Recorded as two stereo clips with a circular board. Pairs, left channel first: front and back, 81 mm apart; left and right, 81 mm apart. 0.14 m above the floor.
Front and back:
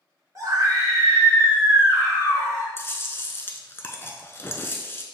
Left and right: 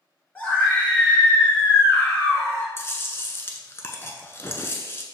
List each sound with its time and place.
0.3 s a scream: 155° left, 2.0 m; by 2.7 s 145° left, 3 m
2.8 s chewing: 45° left, 0.6 m